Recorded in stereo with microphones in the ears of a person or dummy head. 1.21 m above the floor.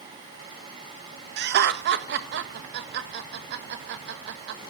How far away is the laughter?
About 1.7 m.